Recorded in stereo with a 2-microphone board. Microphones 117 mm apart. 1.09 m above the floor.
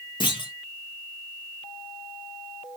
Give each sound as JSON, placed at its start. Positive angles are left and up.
{"t": 0.2, "sound": "a clunk", "side_deg": 40, "distance_m": 0.8}